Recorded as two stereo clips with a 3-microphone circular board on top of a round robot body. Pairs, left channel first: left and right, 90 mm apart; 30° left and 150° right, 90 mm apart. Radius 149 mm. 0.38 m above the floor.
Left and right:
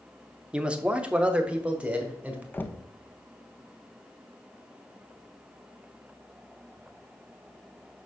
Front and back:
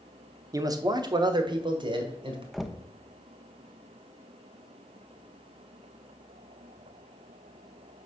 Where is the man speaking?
165° right, 0.9 m.